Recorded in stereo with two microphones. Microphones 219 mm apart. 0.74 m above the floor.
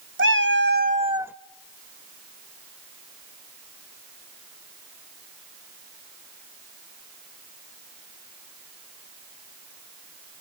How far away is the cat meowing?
About 0.8 m.